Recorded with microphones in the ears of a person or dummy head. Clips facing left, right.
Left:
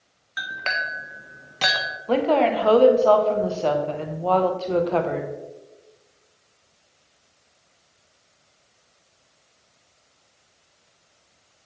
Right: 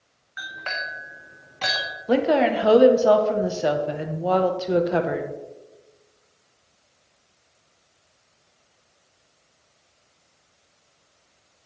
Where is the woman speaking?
15° right (ahead or behind), 1.4 m.